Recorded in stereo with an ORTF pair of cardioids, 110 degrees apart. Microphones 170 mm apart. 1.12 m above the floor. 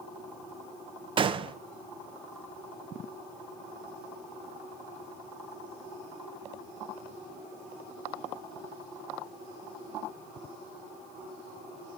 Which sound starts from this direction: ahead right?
A gunshot, at 1.2 s.